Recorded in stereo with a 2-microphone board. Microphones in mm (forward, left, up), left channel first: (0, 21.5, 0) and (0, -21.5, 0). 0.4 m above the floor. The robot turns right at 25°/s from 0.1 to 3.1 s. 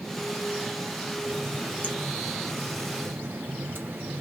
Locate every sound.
1.2 s a running tap: 140° right, 1.1 m; by 4.2 s 95° right, 1.1 m